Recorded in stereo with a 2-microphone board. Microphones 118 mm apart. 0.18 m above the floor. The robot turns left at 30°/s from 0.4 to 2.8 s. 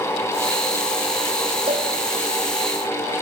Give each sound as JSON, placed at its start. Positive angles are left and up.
{"t": 1.7, "sound": "a cowbell", "side_deg": -55, "distance_m": 6.0}